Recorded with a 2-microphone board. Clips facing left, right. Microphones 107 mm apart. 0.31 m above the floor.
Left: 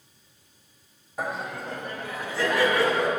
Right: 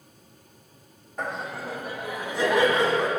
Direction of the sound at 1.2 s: 5° left (ahead or behind).